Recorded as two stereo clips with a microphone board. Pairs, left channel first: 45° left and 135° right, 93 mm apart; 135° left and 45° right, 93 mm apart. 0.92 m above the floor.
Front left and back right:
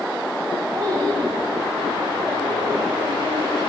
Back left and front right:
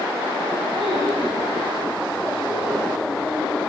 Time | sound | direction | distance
0.7 | a child speaking | 80° right | 4.5 m